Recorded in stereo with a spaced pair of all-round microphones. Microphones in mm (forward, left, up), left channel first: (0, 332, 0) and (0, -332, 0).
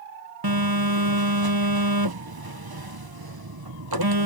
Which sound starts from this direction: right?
A phone buzzing, at 0.4 s.